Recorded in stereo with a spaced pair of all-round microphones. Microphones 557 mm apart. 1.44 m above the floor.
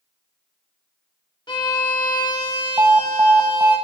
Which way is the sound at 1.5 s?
10° left (ahead or behind).